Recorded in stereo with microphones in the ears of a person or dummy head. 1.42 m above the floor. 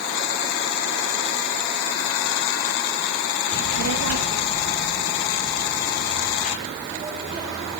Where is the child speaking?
65° right (ahead or behind), 0.9 m; by 7.8 s 40° right (ahead or behind), 3.5 m.